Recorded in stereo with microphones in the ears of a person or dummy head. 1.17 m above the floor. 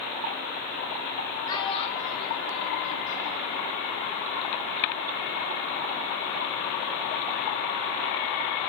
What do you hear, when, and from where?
1.5 s a child speaking: 25° left (ahead or behind), 1.8 m; by 3.6 s 40° left (ahead or behind), 1.8 m